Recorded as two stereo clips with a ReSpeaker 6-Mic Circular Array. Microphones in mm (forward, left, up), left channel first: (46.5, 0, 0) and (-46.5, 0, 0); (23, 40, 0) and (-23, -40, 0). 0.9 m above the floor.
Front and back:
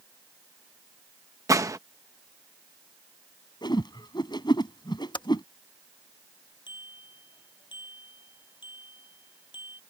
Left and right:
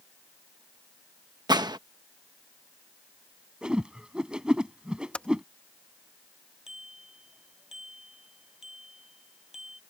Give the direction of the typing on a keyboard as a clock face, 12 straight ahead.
1 o'clock.